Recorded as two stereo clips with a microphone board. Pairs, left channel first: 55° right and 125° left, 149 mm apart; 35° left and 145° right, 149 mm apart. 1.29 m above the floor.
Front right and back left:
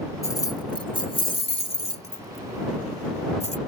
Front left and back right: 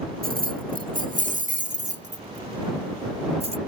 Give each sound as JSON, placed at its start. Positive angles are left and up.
{"t": 0.2, "sound": "keys jangling", "azimuth_deg": -125}